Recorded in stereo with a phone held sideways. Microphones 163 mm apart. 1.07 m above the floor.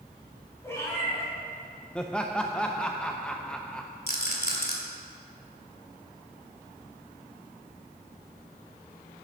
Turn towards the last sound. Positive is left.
turn(degrees=75)  # may be behind; listen again after turning